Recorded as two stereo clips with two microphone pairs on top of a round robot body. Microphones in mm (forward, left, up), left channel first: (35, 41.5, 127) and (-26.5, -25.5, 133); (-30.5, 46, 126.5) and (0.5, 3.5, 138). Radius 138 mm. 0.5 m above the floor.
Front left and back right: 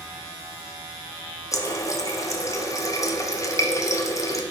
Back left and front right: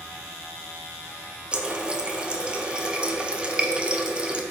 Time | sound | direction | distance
1.5 | a running tap | 25° left | 0.7 m